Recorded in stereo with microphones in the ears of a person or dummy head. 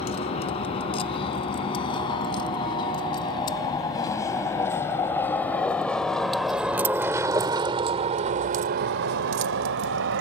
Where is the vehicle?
30° left (ahead or behind); by 10.2 s 60° right (ahead or behind).